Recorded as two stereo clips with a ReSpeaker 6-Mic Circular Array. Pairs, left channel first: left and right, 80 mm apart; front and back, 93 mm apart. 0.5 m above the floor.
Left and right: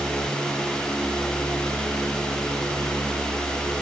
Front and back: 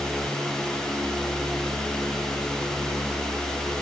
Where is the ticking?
No ticking in this recording.